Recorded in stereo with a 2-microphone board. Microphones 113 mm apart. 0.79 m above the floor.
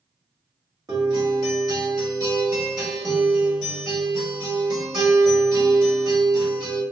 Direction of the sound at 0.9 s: 35° right (ahead or behind).